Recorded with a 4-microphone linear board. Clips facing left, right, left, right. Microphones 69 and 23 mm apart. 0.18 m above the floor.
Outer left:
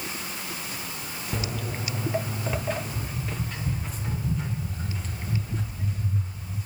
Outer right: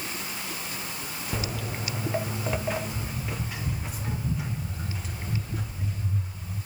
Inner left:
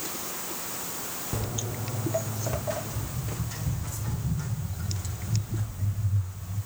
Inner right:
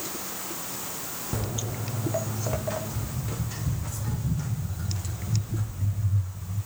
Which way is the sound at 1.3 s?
5° right (ahead or behind).